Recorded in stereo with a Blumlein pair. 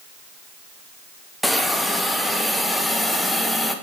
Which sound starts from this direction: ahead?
A hiss, at 1.4 s.